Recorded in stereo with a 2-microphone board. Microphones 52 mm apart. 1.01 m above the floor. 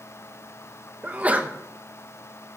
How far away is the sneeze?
About 1.2 m.